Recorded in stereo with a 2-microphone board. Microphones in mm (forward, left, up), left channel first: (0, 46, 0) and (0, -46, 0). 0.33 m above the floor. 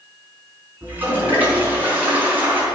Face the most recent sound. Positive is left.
turn(degrees=-20)  # may be behind; listen again after turning